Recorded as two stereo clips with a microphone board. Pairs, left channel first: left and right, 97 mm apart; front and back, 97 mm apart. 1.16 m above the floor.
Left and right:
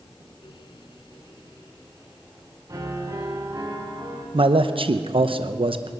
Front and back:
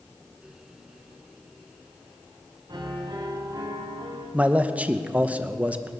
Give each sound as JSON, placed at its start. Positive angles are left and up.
{"t": 2.7, "sound": "a piano", "azimuth_deg": -135, "distance_m": 3.0}
{"t": 4.3, "sound": "a man speaking", "azimuth_deg": -105, "distance_m": 0.8}